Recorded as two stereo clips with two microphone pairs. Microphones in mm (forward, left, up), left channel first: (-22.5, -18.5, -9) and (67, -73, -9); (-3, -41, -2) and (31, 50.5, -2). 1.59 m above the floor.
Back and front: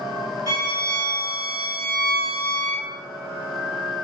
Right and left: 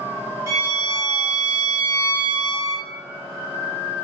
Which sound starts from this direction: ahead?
A violin, at 0.5 s.